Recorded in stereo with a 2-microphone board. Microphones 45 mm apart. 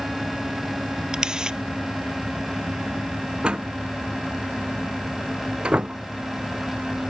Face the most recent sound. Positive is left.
turn(degrees=-20)  # may be behind; listen again after turning